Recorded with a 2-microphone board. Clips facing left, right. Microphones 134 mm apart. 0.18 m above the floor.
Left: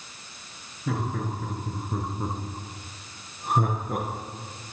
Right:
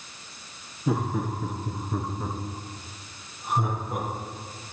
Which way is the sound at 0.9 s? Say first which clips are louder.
Right 3 dB; 20° right (ahead or behind).